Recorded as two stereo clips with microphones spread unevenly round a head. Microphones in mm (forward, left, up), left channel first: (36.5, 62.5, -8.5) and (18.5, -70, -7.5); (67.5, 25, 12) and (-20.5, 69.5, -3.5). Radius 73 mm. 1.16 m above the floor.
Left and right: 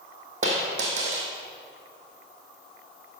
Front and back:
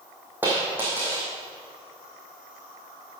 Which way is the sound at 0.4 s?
125° right.